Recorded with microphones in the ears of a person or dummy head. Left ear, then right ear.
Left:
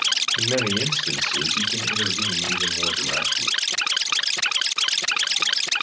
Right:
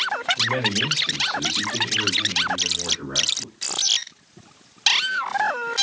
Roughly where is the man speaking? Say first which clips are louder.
Even; left.